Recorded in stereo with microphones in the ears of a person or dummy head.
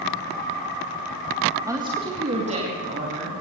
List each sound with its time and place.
1.7 s a woman speaking: 15° right (ahead or behind), 1.6 m; by 3.3 s 35° right (ahead or behind), 3.5 m